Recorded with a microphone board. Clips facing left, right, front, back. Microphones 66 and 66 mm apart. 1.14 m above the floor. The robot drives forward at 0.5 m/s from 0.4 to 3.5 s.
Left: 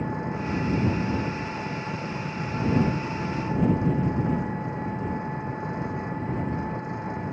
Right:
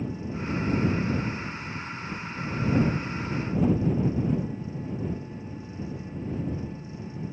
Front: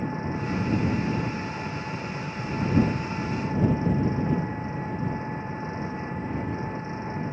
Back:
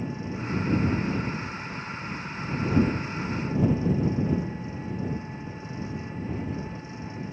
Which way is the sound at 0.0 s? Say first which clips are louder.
Left 3 dB, front 3 dB; 55° left.